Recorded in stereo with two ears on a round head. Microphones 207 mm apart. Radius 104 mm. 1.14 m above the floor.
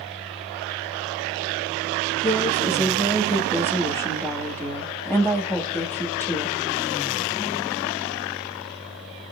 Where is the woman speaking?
10° left (ahead or behind), 2 m.